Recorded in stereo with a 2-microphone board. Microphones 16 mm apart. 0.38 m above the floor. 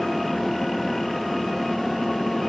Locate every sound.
Only background noise.